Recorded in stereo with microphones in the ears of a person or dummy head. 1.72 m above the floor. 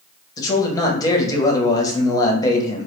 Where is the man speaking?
25° left (ahead or behind), 0.7 m.